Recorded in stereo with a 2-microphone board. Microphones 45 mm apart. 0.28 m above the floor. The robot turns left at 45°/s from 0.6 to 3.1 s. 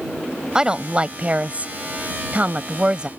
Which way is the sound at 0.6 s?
35° right.